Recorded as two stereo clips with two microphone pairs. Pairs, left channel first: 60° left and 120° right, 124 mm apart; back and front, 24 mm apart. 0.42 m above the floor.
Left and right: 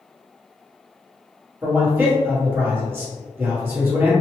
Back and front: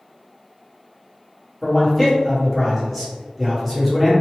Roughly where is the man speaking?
Right.